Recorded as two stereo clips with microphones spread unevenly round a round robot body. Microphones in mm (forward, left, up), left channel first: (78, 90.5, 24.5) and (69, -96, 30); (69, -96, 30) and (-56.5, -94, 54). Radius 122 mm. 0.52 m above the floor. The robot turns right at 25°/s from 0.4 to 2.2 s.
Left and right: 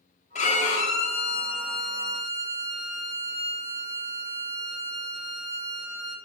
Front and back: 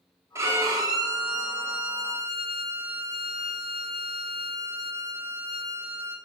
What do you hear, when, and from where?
0.3 s a violin: 105° left, 1.4 m; by 6.2 s 150° left, 1.4 m